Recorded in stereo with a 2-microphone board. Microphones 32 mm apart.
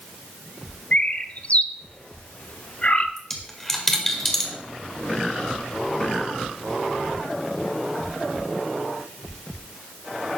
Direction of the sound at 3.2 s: 10° left (ahead or behind).